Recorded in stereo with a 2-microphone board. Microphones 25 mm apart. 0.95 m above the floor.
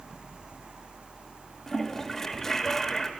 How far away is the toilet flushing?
About 1.2 m.